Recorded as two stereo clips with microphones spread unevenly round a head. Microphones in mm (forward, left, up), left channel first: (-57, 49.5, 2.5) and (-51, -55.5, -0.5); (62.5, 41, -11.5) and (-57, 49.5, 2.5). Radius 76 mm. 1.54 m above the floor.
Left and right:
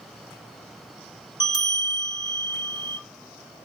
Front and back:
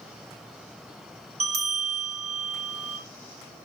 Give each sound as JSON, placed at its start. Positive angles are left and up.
{"t": 1.4, "sound": "a bell", "azimuth_deg": 140, "distance_m": 2.5}